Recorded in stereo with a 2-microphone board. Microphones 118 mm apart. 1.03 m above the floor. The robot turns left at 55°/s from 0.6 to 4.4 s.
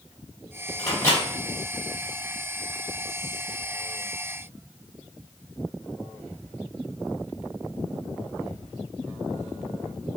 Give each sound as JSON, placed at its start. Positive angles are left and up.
{"t": 0.8, "sound": "a microwave", "side_deg": 40, "distance_m": 1.4}